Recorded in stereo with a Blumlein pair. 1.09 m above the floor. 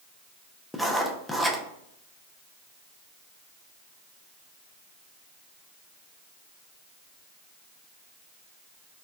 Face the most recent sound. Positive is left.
turn(degrees=5)